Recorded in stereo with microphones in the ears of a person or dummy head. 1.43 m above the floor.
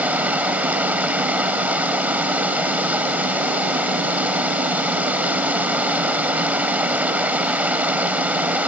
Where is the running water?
5° right (ahead or behind).